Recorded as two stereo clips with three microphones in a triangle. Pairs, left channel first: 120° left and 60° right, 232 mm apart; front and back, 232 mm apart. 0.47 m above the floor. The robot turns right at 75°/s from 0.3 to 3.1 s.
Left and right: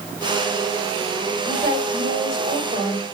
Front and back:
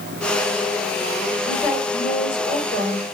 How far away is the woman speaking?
About 1.6 m.